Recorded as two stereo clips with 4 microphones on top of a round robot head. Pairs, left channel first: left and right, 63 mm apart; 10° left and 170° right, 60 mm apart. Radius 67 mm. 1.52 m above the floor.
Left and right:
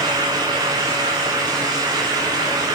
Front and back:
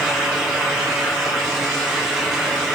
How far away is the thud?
No thud in this recording.